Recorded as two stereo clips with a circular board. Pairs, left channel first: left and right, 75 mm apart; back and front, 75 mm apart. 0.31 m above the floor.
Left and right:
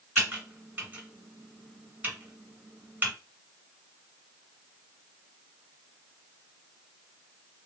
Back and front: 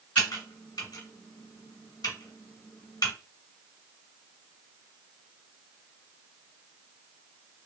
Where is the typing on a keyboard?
155° right, 1.5 m.